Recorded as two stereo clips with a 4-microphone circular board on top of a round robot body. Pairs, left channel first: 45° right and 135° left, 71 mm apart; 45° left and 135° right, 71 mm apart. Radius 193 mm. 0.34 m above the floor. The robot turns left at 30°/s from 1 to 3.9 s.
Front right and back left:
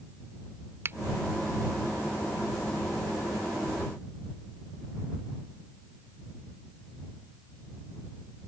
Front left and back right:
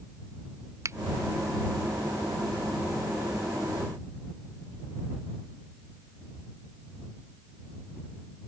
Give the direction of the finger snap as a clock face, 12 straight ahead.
6 o'clock.